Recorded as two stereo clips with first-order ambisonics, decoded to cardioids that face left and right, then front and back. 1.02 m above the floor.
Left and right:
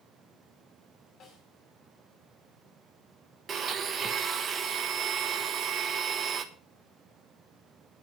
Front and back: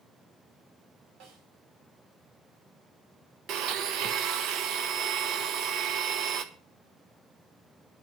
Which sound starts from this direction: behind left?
A snare drum, at 1.2 s.